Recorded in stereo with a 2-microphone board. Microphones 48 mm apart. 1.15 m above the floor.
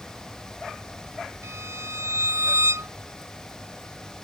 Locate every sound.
1.4 s a violin: 85° right